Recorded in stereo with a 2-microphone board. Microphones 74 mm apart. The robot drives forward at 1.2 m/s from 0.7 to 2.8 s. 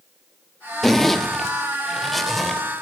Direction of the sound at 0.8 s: 5° left (ahead or behind).